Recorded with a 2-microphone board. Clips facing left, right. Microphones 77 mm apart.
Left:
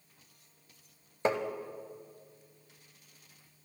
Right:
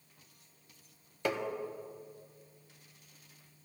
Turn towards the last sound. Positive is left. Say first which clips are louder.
# left 4 dB
turn(degrees=30)  # may be behind; listen again after turning